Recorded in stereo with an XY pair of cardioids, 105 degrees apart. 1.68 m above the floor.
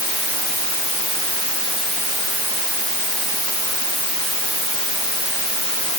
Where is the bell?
I don't hear a bell.